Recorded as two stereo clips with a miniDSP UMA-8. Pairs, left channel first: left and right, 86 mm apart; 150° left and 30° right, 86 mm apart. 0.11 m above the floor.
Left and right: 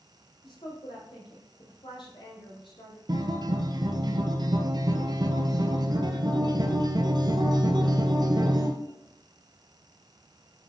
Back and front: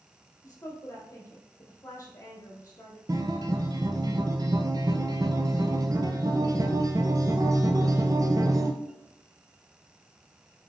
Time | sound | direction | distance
0.4 | a woman speaking | 100° left | 3.5 m
3.1 | a guitar | 70° right | 1.1 m